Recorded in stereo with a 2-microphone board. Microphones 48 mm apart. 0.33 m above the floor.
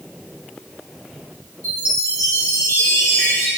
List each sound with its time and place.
1.6 s a chime: 70° left (ahead or behind), 2.5 m